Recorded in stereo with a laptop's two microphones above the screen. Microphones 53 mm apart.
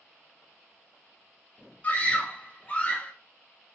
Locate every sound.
1.8 s a scream: 30° left (ahead or behind), 0.8 m